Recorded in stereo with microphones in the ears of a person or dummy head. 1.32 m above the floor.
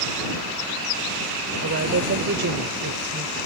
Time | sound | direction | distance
1.6 | a woman speaking | 55° right (ahead or behind) | ?